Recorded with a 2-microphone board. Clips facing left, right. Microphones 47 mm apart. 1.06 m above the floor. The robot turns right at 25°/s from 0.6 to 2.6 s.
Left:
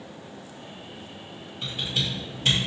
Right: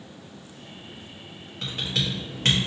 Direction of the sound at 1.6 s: 80° right.